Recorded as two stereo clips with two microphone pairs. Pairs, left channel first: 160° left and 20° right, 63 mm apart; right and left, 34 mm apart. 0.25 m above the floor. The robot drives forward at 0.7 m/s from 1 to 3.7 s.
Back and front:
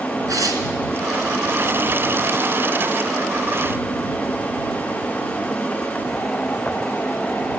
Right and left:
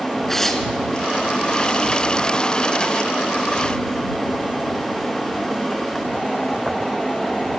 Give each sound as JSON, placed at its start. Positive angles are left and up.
{"t": 0.3, "sound": "tearing paper", "azimuth_deg": -10, "distance_m": 3.0}